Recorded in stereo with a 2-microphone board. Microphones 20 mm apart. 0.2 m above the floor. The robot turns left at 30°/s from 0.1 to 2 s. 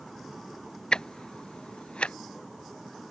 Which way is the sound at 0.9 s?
50° left (ahead or behind).